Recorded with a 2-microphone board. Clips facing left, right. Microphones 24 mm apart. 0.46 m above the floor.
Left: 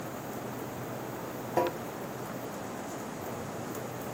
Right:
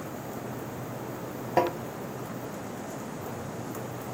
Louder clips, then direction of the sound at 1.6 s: Right 4 dB; 35° right (ahead or behind).